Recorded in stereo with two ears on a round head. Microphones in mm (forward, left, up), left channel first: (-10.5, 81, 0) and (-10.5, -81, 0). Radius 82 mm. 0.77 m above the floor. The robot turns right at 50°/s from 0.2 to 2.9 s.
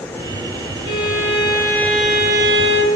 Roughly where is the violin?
Behind left.